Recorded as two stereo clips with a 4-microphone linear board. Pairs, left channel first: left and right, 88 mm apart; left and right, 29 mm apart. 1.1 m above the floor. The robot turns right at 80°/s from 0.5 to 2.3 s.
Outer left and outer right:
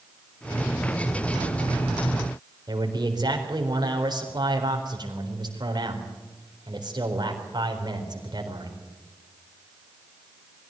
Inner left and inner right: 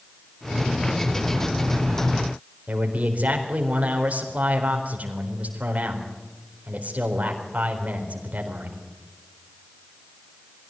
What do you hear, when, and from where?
2.7 s a man speaking: 50° right (ahead or behind), 4 m